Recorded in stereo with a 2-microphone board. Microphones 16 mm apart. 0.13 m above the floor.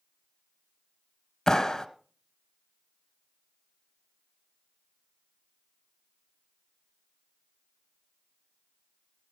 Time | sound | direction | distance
1.5 | a clap | 30° left (ahead or behind) | 0.9 m